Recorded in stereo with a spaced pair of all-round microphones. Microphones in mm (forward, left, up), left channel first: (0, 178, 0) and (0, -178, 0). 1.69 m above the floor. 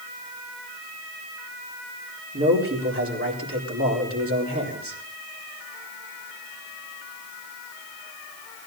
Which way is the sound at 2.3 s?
40° right (ahead or behind).